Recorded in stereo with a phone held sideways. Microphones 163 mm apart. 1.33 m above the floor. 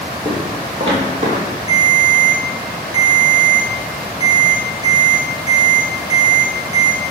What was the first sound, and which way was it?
Footsteps, 10° right (ahead or behind).